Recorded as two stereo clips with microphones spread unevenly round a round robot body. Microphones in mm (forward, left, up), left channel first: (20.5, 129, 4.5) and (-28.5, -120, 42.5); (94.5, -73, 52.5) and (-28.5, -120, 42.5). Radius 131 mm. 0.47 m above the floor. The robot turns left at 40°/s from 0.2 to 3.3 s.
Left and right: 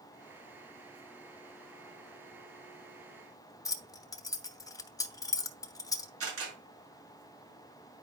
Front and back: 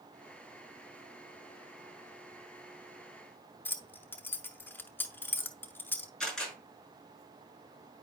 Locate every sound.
3.6 s keys jangling: 80° left, 0.6 m
6.2 s a camera shutter: 65° right, 6 m